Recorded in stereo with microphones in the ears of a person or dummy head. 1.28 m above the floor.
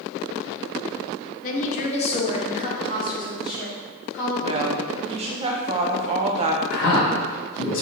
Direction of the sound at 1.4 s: 45° left (ahead or behind).